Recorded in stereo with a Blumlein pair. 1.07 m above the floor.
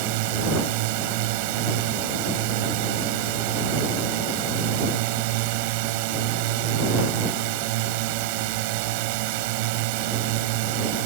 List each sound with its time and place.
0.0 s a drone: 45° right